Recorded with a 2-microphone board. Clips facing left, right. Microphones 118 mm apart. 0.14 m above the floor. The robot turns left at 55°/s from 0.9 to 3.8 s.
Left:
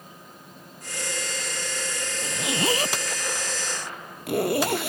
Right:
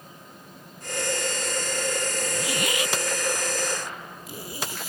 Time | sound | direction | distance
2.2 | a zipper | 10° left (ahead or behind) | ?